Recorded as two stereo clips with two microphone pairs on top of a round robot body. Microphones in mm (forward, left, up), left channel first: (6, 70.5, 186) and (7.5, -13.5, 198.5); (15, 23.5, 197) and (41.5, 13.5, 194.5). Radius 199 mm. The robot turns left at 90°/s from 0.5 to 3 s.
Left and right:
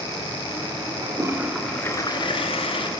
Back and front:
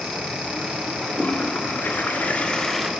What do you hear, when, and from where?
1.0 s a toilet flushing: 125° right, 2 m; by 2.9 s 60° left, 2 m